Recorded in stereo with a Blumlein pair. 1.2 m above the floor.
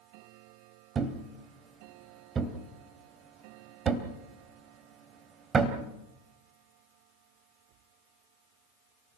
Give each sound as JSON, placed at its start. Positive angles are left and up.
{"t": 0.9, "sound": "a thud", "azimuth_deg": -20, "distance_m": 2.5}